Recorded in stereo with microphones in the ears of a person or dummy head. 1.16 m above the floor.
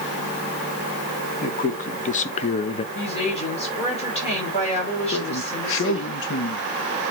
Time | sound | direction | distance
1.4 | a man speaking | 45° left (ahead or behind) | 1.3 m
3.0 | a woman speaking | 35° left (ahead or behind) | 6.5 m
5.1 | a man speaking | 70° left (ahead or behind) | 1.2 m